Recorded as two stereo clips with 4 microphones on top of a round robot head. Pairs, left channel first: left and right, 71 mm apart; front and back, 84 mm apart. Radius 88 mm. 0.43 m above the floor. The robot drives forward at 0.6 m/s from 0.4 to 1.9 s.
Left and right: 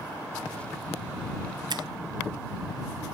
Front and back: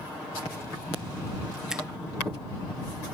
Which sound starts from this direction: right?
A finger snap, at 1.7 s.